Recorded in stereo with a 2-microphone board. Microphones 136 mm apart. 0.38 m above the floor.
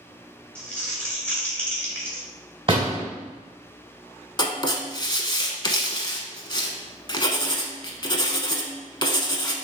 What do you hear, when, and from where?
0.6 s crumpling: 10° left (ahead or behind), 1.6 m
2.7 s a door slam: 45° right (ahead or behind), 2 m
4.4 s writing: 35° left (ahead or behind), 0.7 m